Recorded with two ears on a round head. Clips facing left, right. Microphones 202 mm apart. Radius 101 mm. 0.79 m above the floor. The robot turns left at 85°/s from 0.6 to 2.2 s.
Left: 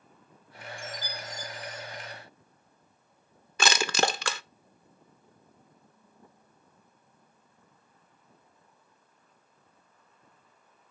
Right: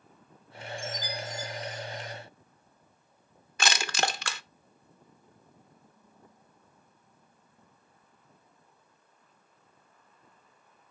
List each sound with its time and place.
0.8 s a chime: 110° left, 4.5 m; by 2.1 s 10° right, 4.5 m
3.6 s crushing: 70° left (ahead or behind), 0.7 m